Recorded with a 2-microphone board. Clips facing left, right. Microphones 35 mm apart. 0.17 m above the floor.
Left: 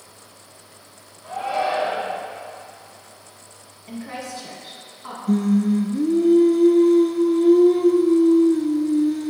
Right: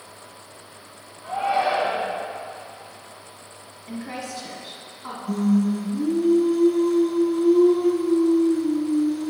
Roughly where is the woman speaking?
Centre.